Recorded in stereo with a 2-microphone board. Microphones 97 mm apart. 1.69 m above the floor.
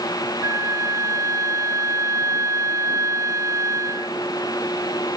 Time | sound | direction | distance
0.4 | a flute | 35° right (ahead or behind) | ?